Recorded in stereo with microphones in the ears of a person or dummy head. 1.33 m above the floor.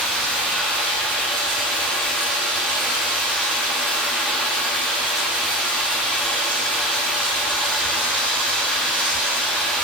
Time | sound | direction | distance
0.0 | running water | centre (ahead or behind) | 0.9 m